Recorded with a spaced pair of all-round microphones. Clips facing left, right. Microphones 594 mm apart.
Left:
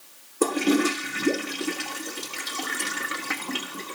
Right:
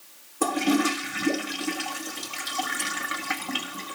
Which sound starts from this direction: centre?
A toilet flushing, at 0.4 s.